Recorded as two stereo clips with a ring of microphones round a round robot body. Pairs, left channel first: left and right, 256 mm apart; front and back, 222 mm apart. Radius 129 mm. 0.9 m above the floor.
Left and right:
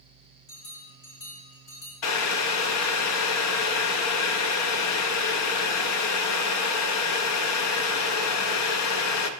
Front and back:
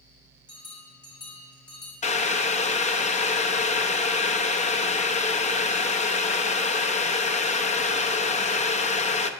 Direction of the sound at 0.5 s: 70° left.